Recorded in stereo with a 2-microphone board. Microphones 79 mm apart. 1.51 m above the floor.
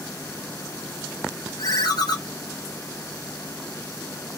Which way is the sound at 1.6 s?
55° left (ahead or behind).